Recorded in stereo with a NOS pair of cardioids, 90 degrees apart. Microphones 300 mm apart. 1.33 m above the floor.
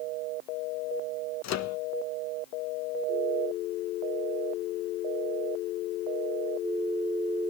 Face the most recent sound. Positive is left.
turn(degrees=60)